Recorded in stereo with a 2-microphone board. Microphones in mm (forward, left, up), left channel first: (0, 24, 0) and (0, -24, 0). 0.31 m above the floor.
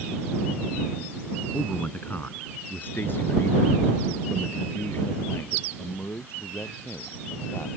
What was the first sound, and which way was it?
A man speaking, 30° left (ahead or behind).